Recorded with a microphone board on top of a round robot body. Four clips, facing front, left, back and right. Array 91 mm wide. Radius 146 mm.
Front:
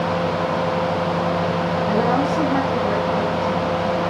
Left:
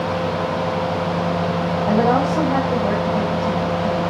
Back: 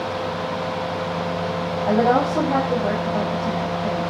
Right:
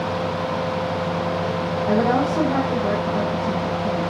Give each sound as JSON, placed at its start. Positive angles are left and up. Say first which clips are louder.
{"t": 1.9, "sound": "a woman speaking", "louder": "left 2 dB, back 3 dB", "azimuth_deg": 165, "distance_m": 8.0}